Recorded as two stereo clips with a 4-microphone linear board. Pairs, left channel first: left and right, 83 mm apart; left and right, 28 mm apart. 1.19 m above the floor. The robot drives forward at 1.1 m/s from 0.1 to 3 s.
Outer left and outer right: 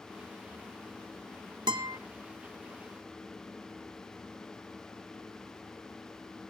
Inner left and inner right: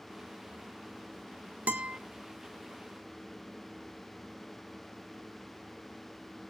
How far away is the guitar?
About 1.4 m.